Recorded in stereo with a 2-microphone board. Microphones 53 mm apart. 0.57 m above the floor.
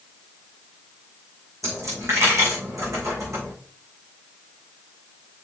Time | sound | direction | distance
1.6 | a dropped coin | 75° right (ahead or behind) | 5 m